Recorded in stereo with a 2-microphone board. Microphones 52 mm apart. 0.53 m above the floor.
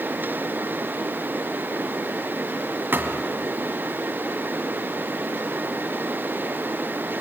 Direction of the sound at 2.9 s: 45° right (ahead or behind).